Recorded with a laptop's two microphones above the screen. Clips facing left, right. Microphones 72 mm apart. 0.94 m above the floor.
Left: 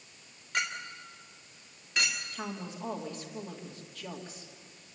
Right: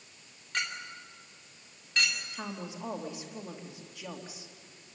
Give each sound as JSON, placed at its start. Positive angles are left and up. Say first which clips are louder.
{"t": 0.5, "sound": "a clink", "louder": "left 2 dB", "side_deg": 10, "distance_m": 2.0}
{"t": 2.3, "sound": "a woman speaking", "louder": "left 1 dB", "side_deg": -15, "distance_m": 2.0}